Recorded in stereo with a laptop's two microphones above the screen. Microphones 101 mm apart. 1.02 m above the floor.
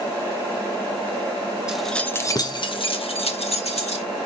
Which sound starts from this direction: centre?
Keys jangling, at 1.7 s.